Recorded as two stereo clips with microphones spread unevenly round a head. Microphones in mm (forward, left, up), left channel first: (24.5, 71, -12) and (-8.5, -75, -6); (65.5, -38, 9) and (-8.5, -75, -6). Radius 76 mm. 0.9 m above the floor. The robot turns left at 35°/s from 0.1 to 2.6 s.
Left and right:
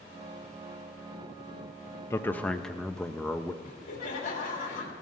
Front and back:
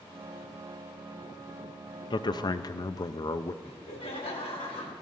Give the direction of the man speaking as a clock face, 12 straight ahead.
12 o'clock.